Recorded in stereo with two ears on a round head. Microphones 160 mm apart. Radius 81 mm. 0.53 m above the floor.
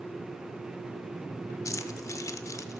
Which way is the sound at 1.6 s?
20° left (ahead or behind).